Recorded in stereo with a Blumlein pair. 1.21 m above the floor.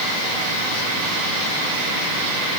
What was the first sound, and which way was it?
Only background noise.